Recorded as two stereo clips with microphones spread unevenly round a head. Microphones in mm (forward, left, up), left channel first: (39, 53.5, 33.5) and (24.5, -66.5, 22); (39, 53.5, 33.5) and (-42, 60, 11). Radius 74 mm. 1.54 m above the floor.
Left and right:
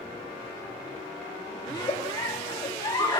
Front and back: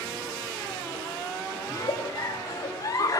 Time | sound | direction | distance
1.7 | a giggle | 30° left | 2.5 m